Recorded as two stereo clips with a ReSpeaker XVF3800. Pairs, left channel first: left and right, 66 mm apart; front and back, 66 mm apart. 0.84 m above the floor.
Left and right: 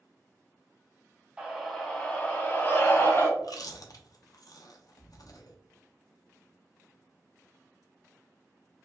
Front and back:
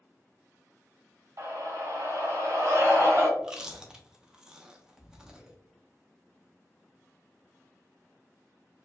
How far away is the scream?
About 1.2 m.